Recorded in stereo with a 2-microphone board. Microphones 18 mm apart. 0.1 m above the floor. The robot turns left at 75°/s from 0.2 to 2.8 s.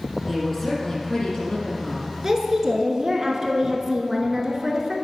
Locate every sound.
0.3 s a woman speaking: 175° right, 3 m; by 2.1 s 45° left, 3 m
2.2 s a woman speaking: 20° right (ahead or behind), 1.1 m; by 4.9 s 15° right (ahead or behind), 1.1 m